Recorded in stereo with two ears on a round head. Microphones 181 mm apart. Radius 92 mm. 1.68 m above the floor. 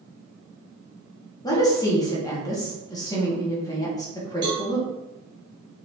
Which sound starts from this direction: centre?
A woman speaking, at 1.4 s.